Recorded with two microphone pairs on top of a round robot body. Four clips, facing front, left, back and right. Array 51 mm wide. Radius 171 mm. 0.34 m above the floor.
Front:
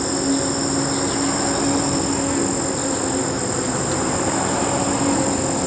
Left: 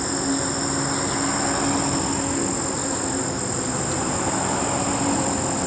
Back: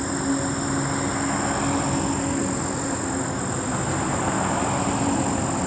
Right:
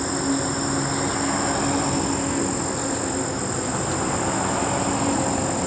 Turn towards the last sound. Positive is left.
turn(degrees=0)